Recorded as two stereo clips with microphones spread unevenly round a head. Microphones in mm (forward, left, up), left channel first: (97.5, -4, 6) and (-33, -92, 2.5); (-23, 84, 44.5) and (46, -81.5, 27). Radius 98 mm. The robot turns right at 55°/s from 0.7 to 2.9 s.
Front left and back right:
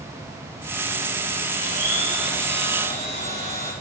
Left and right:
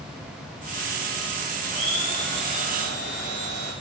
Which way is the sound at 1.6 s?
170° right.